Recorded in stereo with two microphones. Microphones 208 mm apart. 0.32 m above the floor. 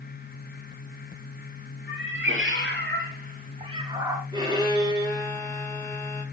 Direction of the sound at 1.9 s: 75° right (ahead or behind).